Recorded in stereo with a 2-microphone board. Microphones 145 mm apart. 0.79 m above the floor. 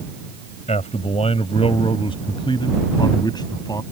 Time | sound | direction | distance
0.7 | a man speaking | 50° left (ahead or behind) | ?